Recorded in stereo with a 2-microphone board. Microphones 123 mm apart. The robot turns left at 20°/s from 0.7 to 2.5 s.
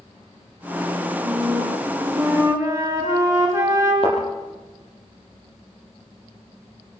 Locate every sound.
1.2 s a flute: 45° right (ahead or behind), 5.5 m; by 3.9 s 20° right (ahead or behind), 5.5 m
4.0 s a thud: 50° left (ahead or behind), 7 m